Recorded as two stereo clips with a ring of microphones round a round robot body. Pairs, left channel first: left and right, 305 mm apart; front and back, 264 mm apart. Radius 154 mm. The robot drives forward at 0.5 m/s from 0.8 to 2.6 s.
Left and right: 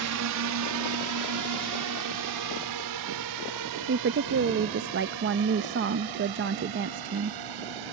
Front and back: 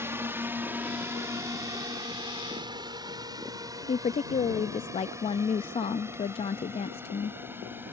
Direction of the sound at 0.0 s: 100° right.